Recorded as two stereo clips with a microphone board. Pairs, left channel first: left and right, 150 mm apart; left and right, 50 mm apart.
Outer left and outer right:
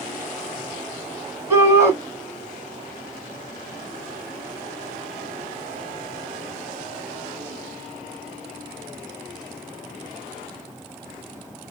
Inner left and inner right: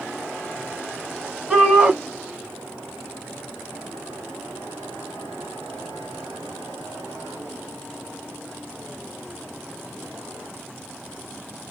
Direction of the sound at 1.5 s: 15° right (ahead or behind).